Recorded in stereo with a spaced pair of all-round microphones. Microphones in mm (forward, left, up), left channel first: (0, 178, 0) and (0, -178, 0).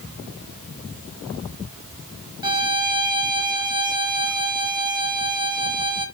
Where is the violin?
10° right (ahead or behind), 1.6 m.